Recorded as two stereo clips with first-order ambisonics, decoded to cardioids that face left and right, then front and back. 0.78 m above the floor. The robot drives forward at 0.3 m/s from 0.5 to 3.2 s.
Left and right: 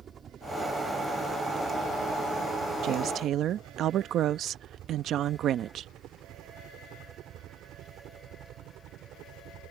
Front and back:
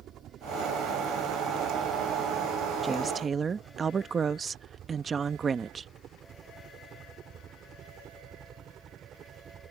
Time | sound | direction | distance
0.0 | a helicopter | 145° right | ?
2.8 | a woman speaking | 105° right | ?